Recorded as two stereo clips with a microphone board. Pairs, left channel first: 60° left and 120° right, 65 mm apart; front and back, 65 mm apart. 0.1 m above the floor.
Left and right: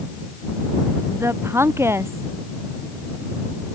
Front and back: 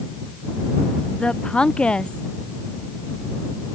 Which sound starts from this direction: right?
A woman speaking, at 1.1 s.